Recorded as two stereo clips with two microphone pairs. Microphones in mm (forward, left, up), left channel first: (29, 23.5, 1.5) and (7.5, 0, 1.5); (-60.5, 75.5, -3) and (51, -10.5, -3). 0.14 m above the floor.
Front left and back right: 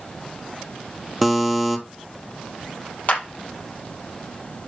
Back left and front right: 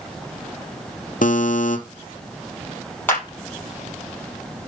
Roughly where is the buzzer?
Behind left.